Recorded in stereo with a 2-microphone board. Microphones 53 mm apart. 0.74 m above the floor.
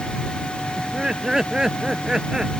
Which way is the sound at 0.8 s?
15° right (ahead or behind).